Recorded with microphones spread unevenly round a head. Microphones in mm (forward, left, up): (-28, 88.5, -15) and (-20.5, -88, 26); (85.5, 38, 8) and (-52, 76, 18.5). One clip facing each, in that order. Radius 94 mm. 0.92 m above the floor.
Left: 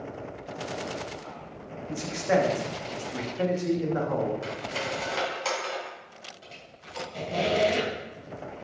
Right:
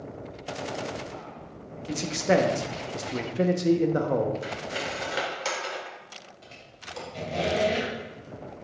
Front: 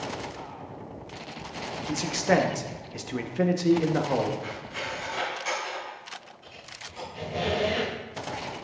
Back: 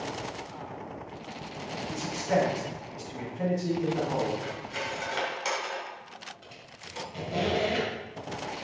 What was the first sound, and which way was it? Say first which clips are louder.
A man speaking: right 2 dB, front 4 dB; 40° right.